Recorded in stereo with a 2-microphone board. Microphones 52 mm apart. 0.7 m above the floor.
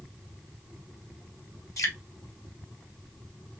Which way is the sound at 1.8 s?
80° left.